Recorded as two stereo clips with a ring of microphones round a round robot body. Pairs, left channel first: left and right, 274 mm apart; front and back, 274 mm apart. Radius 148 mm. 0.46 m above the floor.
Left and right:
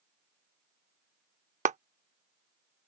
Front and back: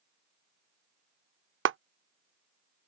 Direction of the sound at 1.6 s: 150° right.